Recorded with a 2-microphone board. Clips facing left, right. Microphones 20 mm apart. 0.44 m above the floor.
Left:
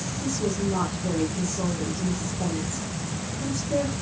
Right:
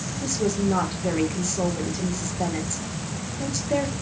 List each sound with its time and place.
0.2 s a woman speaking: 45° right (ahead or behind), 8 m